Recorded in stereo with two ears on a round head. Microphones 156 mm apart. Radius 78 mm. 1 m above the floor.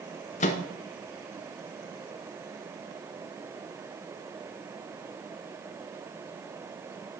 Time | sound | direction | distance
0.4 | a microwave | 40° left (ahead or behind) | 0.6 m